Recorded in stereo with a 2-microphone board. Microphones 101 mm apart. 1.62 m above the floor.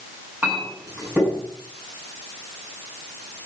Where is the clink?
20° right (ahead or behind), 9 m.